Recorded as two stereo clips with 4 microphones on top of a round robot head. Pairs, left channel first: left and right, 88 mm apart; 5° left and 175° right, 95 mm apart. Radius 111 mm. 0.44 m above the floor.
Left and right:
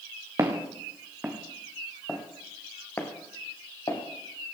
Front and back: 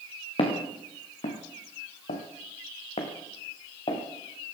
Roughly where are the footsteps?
Ahead right.